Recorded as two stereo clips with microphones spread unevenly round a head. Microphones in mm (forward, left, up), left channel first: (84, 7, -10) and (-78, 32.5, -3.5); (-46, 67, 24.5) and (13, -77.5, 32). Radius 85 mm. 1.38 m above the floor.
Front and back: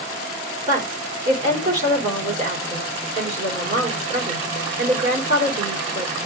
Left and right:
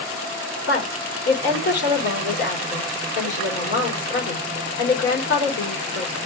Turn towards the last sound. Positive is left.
turn(degrees=130)